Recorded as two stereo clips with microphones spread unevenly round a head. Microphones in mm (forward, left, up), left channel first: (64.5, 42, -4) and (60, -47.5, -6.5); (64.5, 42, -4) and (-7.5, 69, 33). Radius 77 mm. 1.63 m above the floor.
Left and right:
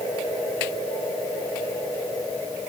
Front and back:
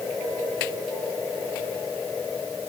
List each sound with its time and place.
Only background noise.